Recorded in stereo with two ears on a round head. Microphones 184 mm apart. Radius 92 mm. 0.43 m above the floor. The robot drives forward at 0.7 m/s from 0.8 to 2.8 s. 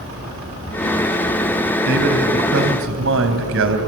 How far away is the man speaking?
About 2.5 m.